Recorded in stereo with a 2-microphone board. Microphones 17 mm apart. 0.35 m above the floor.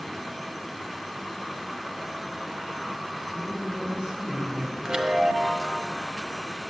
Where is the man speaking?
65° right (ahead or behind), 2.5 m; by 4.7 s 70° right (ahead or behind), 3.5 m.